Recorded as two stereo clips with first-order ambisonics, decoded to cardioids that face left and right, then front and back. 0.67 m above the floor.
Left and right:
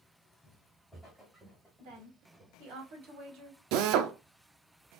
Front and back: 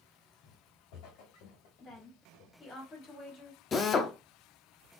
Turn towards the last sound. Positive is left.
turn(degrees=-70)